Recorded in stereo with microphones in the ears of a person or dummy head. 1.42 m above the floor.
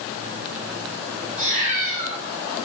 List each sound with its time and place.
1.4 s a cat meowing: 30° right (ahead or behind), 0.9 m